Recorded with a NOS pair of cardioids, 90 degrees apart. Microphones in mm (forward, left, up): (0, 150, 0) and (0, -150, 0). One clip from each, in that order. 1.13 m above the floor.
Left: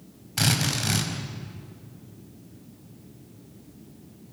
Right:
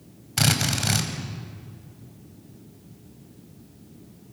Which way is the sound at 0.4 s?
25° right.